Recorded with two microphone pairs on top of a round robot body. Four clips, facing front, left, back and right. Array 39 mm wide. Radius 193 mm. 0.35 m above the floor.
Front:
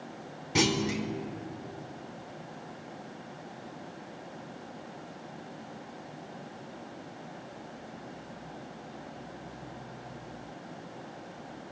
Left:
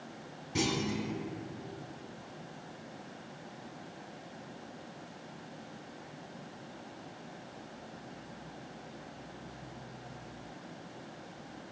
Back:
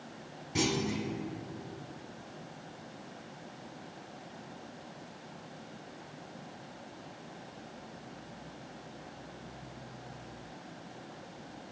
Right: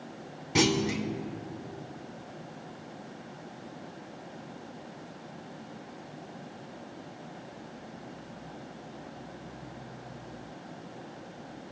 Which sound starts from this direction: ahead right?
A clunk, at 0.6 s.